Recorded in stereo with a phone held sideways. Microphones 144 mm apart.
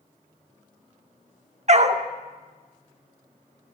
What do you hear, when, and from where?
1.7 s a dog barking: 50° right (ahead or behind), 0.8 m